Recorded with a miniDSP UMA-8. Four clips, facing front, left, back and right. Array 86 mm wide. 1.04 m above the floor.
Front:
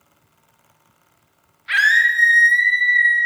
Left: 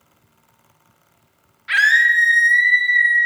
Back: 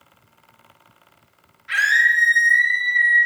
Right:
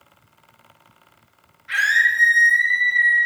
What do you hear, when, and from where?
1.7 s a scream: 45° left, 0.6 m